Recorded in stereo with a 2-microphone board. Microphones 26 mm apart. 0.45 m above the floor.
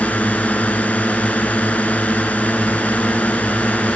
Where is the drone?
75° left (ahead or behind).